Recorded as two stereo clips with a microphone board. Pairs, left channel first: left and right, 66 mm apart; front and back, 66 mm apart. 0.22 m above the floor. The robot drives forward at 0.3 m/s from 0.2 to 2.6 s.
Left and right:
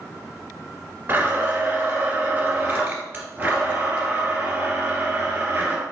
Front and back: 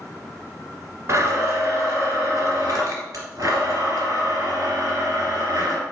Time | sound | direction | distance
1.1 | a blender | 140° right | 1.2 m